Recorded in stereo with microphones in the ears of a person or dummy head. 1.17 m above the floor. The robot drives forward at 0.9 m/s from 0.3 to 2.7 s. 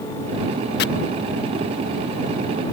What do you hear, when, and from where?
0.8 s chopping: 50° left (ahead or behind)